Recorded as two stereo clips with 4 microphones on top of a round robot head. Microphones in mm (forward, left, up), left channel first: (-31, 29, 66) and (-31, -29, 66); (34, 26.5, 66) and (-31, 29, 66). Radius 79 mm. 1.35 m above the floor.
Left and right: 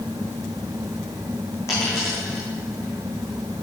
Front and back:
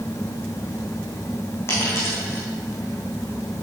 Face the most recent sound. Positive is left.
turn(degrees=50)